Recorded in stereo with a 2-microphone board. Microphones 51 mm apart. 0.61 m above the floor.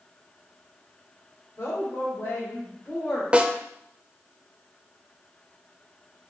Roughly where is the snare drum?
Right.